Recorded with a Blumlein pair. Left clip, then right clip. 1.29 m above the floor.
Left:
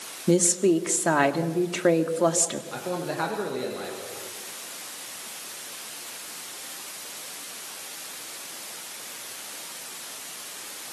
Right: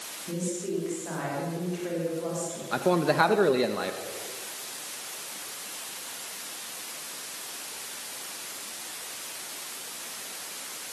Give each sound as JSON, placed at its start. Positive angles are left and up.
{"t": 0.3, "sound": "a woman speaking", "azimuth_deg": 50, "distance_m": 2.5}
{"t": 2.7, "sound": "a man speaking", "azimuth_deg": -25, "distance_m": 2.0}